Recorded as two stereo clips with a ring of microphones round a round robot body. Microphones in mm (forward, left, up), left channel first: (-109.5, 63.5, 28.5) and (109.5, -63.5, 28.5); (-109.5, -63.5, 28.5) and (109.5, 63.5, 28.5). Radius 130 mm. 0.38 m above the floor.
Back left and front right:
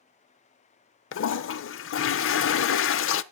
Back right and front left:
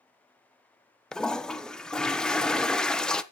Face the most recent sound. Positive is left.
turn(degrees=125)